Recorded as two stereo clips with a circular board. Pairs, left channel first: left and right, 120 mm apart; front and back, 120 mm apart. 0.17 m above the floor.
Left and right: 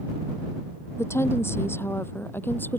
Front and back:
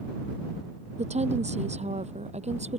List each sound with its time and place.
1.0 s a woman speaking: 160° left; by 2.8 s 165° left